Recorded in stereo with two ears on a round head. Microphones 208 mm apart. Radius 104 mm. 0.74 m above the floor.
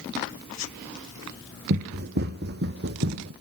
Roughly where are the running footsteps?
Right.